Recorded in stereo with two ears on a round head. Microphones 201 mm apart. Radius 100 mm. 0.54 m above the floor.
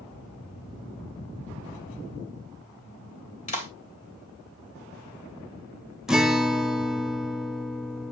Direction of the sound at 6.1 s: 5° right (ahead or behind).